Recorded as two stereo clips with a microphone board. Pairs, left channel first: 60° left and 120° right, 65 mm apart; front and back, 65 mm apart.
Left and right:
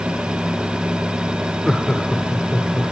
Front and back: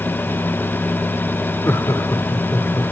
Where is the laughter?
25° right, 1.5 m; by 2.9 s 5° right, 2.5 m.